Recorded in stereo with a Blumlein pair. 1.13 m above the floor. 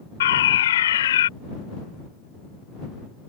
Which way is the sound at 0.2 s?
60° left.